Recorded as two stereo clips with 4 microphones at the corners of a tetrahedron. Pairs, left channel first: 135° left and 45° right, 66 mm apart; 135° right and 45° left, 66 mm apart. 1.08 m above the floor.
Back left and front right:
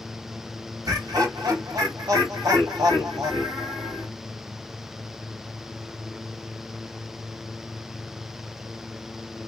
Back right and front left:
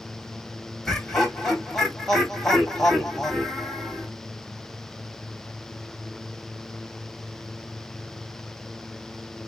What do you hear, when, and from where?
0.8 s laughter: 50° right, 2.5 m